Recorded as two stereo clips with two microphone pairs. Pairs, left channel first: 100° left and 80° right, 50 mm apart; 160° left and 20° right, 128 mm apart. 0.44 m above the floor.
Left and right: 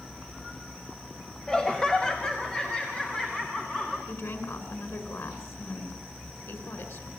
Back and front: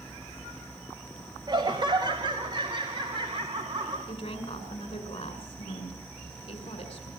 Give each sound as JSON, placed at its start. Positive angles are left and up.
{"t": 1.5, "sound": "laughter", "azimuth_deg": 25, "distance_m": 1.5}
{"t": 4.1, "sound": "a woman speaking", "azimuth_deg": 120, "distance_m": 5.5}